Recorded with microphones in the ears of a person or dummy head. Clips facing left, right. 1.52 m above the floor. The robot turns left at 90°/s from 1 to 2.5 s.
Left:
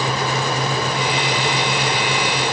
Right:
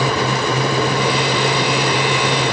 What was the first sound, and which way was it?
Only background noise.